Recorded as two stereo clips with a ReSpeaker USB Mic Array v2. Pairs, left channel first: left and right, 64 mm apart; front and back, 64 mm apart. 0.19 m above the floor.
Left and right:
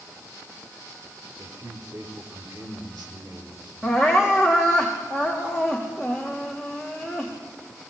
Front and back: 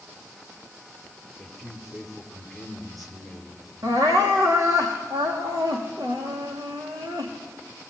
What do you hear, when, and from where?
1.4 s a man speaking: 85° right, 4.5 m
3.8 s crying: 170° right, 5.5 m